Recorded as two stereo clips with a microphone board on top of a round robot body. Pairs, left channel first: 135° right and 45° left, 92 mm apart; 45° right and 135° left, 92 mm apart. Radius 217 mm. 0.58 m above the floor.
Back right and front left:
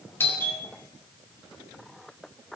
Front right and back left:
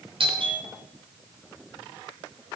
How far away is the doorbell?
About 5 m.